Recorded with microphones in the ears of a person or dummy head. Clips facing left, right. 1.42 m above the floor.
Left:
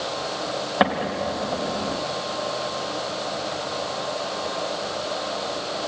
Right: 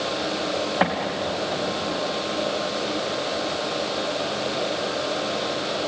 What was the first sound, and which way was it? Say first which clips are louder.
An explosion: left 2 dB; 60° left (ahead or behind).